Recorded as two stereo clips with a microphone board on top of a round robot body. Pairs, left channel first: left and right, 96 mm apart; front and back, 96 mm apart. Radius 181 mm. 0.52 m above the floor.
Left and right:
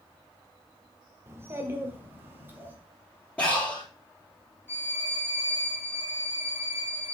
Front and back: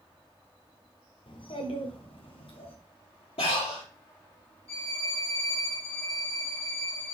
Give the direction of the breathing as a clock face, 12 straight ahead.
12 o'clock.